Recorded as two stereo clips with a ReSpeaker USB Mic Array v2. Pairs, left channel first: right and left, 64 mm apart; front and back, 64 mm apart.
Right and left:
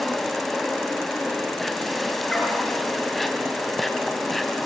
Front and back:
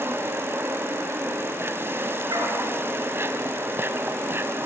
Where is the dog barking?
175° right, 7 m.